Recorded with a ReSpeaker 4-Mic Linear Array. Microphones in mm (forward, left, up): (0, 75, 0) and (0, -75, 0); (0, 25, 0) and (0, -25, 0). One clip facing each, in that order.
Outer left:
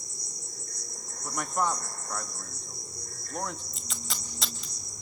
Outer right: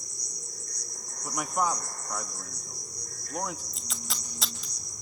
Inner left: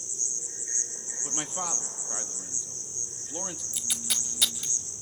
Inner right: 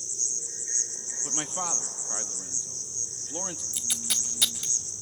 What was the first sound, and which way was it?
An insect, 30° left (ahead or behind).